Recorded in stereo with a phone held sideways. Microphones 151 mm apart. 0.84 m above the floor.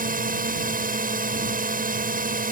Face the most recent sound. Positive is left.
turn(degrees=-60)  # may be behind; listen again after turning